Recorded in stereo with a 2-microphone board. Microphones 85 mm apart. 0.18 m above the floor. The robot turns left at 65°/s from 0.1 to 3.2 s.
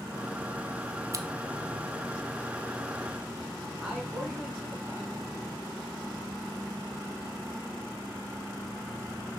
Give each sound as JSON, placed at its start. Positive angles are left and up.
{"t": 1.1, "sound": "scissors", "side_deg": -40, "distance_m": 0.7}
{"t": 3.8, "sound": "a man speaking", "side_deg": -15, "distance_m": 2.5}